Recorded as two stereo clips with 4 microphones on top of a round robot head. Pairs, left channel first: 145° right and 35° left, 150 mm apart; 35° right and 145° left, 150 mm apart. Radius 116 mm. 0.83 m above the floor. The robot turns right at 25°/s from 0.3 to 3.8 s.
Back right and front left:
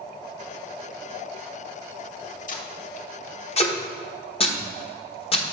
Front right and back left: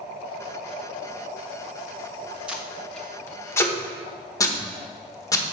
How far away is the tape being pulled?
About 1.1 m.